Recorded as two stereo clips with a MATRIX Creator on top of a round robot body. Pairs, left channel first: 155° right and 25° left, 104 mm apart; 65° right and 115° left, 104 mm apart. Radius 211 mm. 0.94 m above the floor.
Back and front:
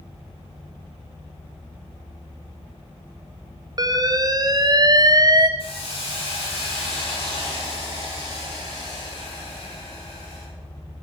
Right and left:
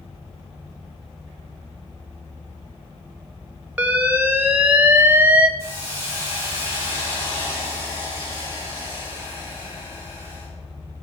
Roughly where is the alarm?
Ahead left.